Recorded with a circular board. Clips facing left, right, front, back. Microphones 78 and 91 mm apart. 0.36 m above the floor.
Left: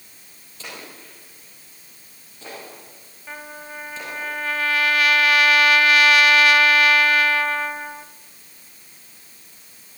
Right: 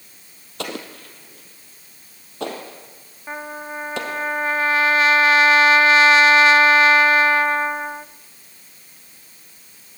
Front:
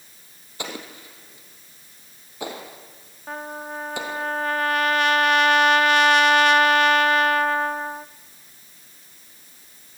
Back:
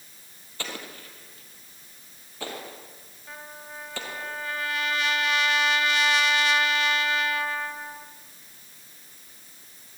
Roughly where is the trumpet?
Ahead right.